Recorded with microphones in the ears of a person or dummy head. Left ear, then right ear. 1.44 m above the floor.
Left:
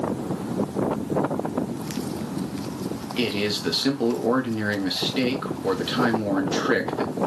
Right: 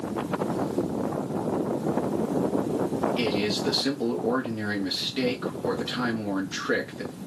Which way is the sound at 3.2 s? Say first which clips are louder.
Left 1 dB; 10° left (ahead or behind).